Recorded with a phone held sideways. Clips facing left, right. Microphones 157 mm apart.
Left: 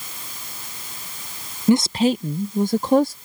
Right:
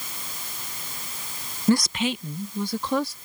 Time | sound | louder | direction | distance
1.7 | a woman speaking | left 5 dB | 15° left (ahead or behind) | ?